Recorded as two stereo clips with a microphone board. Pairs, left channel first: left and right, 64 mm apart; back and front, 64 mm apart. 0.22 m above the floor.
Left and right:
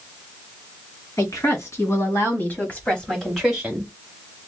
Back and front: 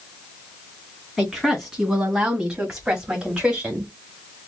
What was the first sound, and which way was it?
A woman speaking, 90° left.